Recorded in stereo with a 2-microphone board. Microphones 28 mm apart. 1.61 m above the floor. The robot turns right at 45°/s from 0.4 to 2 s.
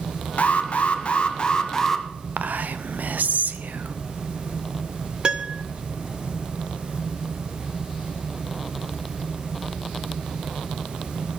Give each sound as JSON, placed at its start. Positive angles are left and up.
{"t": 0.4, "sound": "an alarm", "azimuth_deg": 95, "distance_m": 1.0}
{"t": 2.4, "sound": "whispering", "side_deg": -80, "distance_m": 0.9}
{"t": 5.2, "sound": "a piano", "side_deg": -35, "distance_m": 0.7}